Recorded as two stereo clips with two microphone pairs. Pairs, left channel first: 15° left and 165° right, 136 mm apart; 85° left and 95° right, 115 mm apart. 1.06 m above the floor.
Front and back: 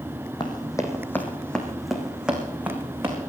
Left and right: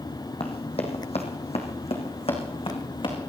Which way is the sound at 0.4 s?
65° left.